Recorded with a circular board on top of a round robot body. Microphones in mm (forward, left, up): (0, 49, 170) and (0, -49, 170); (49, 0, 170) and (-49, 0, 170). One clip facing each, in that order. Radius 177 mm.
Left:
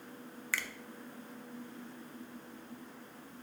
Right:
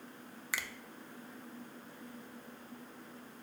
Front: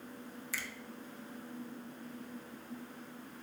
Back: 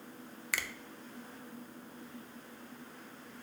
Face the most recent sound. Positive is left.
turn(degrees=-165)